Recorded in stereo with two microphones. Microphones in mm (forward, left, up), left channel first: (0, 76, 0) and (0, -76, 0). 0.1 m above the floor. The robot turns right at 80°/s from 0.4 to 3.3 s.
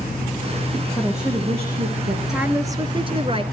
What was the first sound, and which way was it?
A woman speaking, 170° left.